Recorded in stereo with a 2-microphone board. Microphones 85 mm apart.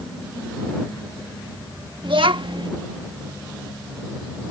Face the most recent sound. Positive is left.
turn(degrees=-75)  # may be behind; listen again after turning